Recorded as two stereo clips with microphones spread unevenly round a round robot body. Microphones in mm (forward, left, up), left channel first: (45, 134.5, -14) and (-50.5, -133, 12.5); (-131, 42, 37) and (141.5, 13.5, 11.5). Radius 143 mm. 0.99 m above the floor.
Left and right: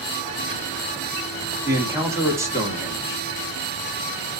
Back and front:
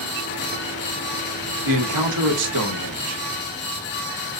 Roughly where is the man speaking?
Ahead right.